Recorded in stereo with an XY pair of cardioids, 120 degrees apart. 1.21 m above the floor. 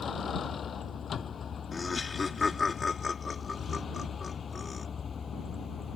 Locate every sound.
0.0 s a vehicle: 40° left; by 6.0 s 35° left
1.7 s laughter: 25° left